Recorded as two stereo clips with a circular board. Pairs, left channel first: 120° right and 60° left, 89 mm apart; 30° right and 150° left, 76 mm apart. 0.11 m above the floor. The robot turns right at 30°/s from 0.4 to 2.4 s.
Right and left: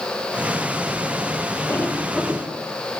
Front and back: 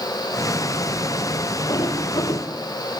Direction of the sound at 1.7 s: 60° right.